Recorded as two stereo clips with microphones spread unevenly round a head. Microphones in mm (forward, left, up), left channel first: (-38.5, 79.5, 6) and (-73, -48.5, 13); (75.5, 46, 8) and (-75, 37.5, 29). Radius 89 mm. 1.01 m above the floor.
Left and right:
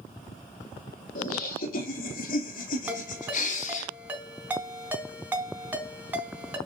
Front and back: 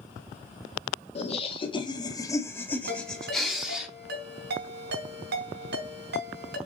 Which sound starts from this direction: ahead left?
Laughter, at 1.1 s.